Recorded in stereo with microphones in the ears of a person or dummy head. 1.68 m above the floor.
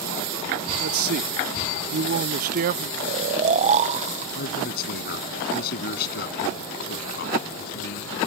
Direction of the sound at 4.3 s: 55° left (ahead or behind).